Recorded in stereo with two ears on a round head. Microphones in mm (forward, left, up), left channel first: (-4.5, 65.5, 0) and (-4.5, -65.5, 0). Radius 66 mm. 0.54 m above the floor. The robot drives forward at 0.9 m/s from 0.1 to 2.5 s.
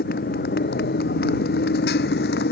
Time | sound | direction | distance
0.0 | a motorcycle | 70° left (ahead or behind) | ?